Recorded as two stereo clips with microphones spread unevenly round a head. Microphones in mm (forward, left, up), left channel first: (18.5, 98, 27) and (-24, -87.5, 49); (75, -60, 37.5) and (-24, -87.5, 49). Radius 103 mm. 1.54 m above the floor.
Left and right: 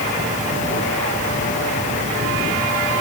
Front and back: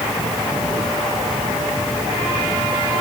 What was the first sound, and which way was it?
Only background noise.